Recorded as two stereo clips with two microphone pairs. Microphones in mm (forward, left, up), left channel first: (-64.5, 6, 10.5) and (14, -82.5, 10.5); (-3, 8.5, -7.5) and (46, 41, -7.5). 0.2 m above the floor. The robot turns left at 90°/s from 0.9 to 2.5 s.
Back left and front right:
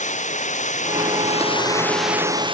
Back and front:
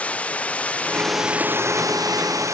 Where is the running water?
145° left; by 2.5 s straight ahead.